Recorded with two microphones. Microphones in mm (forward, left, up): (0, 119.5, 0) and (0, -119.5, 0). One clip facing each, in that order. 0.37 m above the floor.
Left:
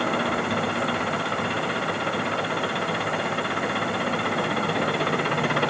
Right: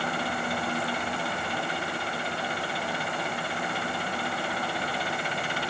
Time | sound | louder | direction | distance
0.0 | an engine running | left 7 dB | 70° left (ahead or behind) | ?